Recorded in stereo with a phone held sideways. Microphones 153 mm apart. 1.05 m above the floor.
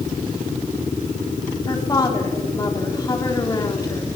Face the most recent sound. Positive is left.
turn(degrees=25)  # may be behind; listen again after turning